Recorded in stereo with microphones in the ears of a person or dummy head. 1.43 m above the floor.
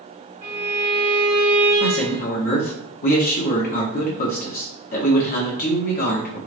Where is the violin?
45° right (ahead or behind), 1.6 m.